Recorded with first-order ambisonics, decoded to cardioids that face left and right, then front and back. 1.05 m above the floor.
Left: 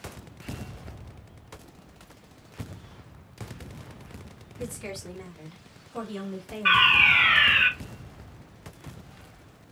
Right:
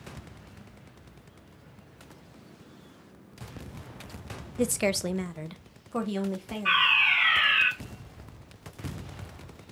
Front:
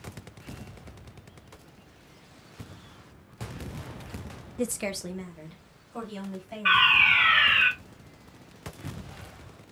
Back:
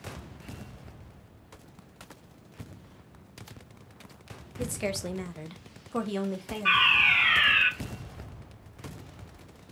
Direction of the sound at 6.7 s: 75° left.